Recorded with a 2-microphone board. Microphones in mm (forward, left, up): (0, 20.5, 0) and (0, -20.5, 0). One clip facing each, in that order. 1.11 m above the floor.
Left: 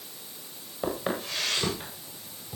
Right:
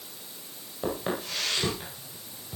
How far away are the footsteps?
About 9.5 m.